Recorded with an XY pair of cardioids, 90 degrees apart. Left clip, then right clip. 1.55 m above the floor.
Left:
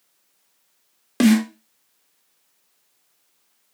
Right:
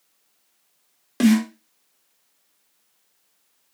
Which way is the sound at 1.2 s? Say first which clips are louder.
Left 2 dB; 35° left.